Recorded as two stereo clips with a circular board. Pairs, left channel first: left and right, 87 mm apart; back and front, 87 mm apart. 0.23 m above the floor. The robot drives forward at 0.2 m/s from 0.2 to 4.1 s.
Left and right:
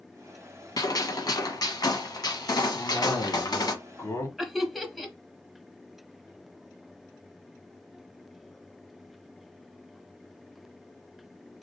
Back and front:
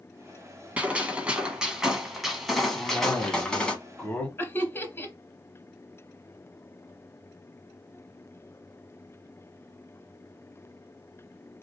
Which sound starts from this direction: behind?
Laughter, at 4.4 s.